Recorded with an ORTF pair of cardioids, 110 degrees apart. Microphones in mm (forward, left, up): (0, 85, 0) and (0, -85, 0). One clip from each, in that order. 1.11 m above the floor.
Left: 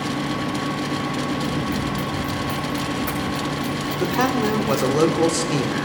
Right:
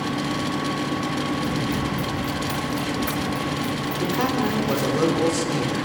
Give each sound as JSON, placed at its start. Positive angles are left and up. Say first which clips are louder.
{"t": 0.0, "sound": "a fan", "louder": "left 1 dB", "azimuth_deg": 5, "distance_m": 1.3}
{"t": 1.4, "sound": "running footsteps", "louder": "left 1 dB", "azimuth_deg": 0, "distance_m": 7.0}
{"t": 4.0, "sound": "a man speaking", "louder": "left 3 dB", "azimuth_deg": 35, "distance_m": 4.0}